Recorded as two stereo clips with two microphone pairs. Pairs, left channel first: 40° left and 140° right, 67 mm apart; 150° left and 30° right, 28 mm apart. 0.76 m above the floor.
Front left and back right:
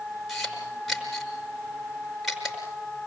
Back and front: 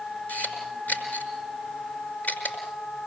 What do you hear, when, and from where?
0.3 s a camera shutter: 135° left, 5.5 m